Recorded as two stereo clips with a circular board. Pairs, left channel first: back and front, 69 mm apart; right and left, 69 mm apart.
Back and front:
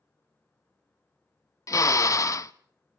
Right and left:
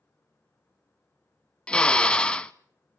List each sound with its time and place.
1.7 s a drill: 160° right, 0.5 m